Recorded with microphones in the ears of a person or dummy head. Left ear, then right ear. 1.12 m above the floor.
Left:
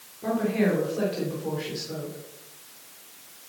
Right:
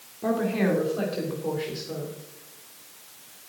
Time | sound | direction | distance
0.2 | a woman speaking | 25° right (ahead or behind) | 4 m